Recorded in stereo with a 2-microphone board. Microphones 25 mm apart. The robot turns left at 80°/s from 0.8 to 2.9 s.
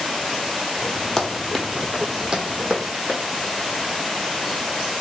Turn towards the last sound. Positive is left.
turn(degrees=-65)  # may be behind; listen again after turning